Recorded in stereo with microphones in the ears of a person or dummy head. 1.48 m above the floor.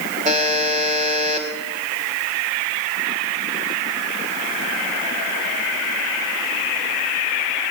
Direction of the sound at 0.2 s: 35° right (ahead or behind).